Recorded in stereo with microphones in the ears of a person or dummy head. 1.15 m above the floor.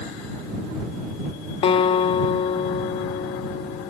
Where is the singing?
I don't hear singing.